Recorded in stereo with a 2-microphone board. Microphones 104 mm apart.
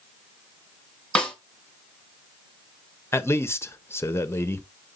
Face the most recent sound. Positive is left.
turn(degrees=25)  # may be behind; listen again after turning